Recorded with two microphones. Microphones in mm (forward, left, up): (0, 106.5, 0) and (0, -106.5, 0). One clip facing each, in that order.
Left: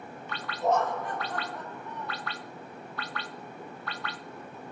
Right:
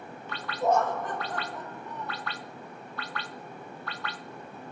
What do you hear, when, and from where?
0.6 s laughter: 45° right (ahead or behind), 1.3 m; by 2.3 s 35° right (ahead or behind), 3 m